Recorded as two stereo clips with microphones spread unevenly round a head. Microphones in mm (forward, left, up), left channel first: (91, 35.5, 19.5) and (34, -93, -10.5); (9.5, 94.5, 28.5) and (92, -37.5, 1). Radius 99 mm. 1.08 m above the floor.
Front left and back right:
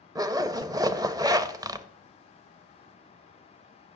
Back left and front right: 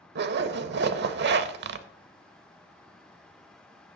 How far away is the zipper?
About 0.8 m.